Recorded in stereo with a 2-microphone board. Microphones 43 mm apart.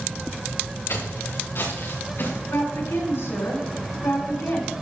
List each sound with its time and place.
0.9 s footsteps: 65° left (ahead or behind), 4 m; by 2.4 s 55° left (ahead or behind), 4.5 m
2.5 s a woman speaking: 65° left (ahead or behind), 4 m